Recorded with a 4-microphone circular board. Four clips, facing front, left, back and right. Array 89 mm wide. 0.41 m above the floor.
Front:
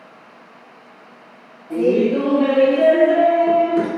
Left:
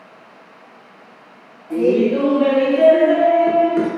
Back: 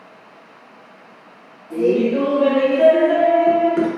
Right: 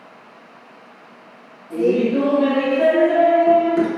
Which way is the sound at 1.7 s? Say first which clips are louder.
Left 2 dB, front 1 dB; 40° left.